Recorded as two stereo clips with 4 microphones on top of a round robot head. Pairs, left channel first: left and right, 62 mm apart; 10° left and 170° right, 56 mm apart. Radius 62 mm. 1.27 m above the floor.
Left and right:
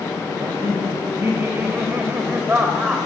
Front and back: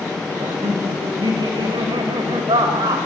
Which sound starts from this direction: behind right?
Laughter, at 0.4 s.